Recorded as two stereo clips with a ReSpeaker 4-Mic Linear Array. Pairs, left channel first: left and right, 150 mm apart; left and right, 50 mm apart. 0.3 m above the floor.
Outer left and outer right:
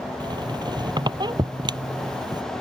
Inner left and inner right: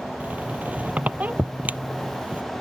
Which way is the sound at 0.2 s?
30° right (ahead or behind).